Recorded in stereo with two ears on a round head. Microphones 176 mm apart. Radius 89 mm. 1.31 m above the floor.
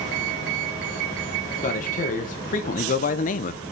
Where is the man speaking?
40° left (ahead or behind), 1.7 m; by 3.6 s 35° left (ahead or behind), 0.7 m.